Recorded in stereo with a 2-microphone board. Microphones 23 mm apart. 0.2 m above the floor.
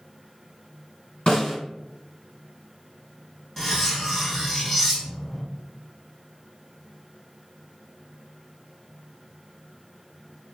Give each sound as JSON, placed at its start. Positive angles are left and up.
{"t": 1.3, "sound": "a snare drum", "side_deg": 35, "distance_m": 1.6}
{"t": 3.6, "sound": "cutlery clinking", "side_deg": 5, "distance_m": 0.6}